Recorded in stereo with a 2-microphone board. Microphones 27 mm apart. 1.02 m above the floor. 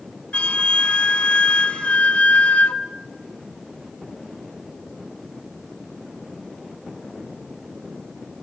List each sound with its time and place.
0.3 s a flute: 60° left (ahead or behind), 1.9 m